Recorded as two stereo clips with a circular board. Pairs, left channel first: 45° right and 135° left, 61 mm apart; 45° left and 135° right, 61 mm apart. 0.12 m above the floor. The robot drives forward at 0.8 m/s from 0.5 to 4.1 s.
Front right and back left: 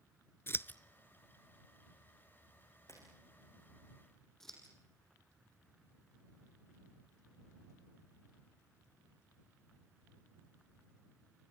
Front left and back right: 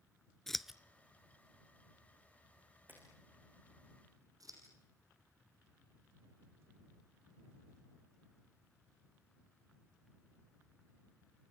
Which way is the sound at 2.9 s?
80° right.